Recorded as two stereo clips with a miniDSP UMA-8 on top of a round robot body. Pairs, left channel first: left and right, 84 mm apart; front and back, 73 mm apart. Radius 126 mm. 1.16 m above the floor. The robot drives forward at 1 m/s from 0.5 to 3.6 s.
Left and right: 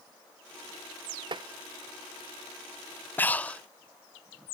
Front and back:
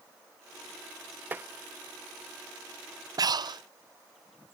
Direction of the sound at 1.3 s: 115° right.